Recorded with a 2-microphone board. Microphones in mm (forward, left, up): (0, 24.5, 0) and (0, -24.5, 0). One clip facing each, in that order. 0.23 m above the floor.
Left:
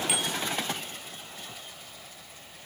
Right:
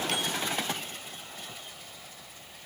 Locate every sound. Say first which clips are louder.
0.1 s a bicycle bell: even; 10° left (ahead or behind), 3.5 m